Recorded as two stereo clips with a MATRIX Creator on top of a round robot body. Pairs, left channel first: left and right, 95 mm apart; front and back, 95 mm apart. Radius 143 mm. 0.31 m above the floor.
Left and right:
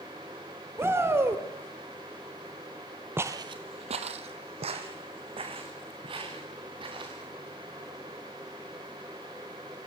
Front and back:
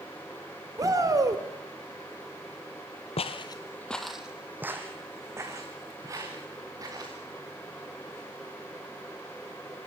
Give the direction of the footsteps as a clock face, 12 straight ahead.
1 o'clock.